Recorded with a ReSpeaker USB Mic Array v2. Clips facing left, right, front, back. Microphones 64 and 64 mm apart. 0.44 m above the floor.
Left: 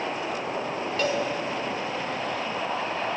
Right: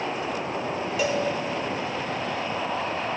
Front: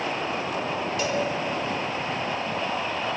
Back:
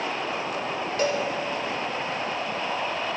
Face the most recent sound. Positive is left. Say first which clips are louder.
# right 1 dB, back 3 dB
turn(degrees=-165)